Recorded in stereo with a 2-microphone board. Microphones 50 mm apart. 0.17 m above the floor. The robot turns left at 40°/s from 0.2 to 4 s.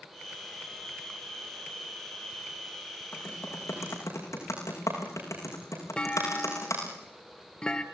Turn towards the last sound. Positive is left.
turn(degrees=15)  # may be behind; listen again after turning